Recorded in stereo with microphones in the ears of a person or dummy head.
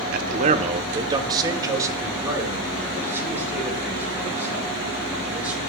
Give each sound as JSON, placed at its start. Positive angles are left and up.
{"t": 0.1, "sound": "a man speaking", "side_deg": -50, "distance_m": 1.0}